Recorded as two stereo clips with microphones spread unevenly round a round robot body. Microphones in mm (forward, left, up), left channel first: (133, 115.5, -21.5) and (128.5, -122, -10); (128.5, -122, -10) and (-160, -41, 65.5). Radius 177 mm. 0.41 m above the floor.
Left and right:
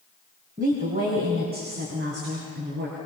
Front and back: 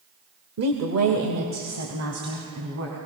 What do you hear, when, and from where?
0.6 s a woman speaking: 155° right, 1.8 m